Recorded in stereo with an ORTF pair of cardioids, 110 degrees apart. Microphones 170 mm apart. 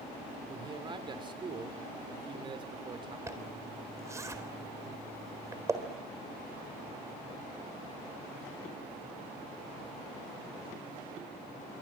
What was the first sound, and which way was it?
A man speaking, 30° right.